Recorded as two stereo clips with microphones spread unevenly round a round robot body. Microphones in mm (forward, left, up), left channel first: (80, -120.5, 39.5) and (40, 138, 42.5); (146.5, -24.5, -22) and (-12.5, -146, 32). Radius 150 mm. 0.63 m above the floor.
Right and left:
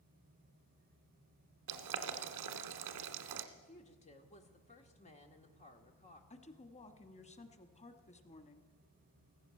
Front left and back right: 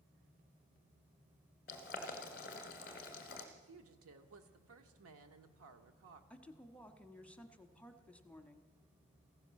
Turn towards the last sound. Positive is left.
turn(degrees=-25)